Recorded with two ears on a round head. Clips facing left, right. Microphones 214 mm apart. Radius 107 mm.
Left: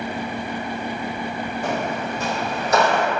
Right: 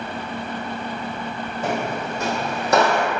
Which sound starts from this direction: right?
Footsteps, at 1.6 s.